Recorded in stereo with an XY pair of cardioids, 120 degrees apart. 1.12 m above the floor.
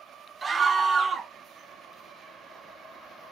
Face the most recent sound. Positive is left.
turn(degrees=-25)